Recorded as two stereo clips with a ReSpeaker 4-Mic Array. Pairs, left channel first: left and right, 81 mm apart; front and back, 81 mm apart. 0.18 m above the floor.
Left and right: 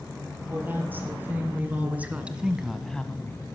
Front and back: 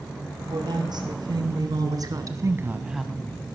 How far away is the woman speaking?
About 4 m.